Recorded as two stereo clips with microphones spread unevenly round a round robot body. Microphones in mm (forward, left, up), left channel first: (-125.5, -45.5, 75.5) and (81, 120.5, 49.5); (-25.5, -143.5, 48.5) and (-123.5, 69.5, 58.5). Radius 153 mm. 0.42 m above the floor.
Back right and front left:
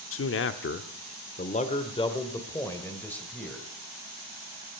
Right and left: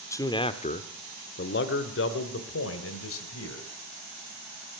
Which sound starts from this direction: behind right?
A man speaking, at 0.1 s.